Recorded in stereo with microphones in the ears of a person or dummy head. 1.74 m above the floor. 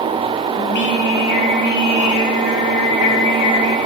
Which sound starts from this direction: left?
Singing, at 0.6 s.